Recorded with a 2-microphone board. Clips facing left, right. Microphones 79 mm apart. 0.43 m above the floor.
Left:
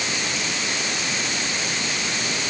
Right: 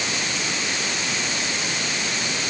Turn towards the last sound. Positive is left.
No sound to turn to.